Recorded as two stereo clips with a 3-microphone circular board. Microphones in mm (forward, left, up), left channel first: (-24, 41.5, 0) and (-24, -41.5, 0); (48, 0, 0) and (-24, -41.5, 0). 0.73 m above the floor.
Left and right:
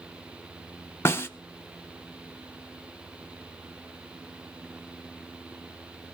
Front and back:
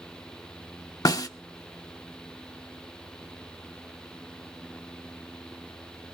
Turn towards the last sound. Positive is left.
turn(degrees=45)